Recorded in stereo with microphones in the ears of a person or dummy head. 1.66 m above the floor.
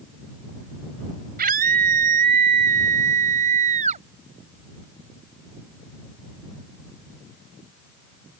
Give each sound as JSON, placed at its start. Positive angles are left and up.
{"t": 1.4, "sound": "a scream", "side_deg": -55}